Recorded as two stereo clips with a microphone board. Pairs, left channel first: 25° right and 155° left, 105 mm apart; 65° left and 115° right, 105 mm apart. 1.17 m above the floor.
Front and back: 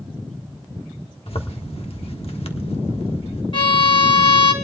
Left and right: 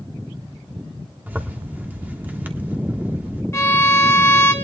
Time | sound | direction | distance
1.3 | a zipper | 40° right | 1.4 m
3.5 | a violin | 5° left | 1.7 m